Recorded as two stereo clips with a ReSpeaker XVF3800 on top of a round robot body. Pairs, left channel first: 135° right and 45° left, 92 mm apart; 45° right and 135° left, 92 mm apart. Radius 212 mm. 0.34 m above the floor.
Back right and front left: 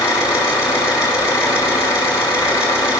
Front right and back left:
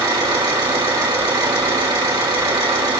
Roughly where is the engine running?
Behind.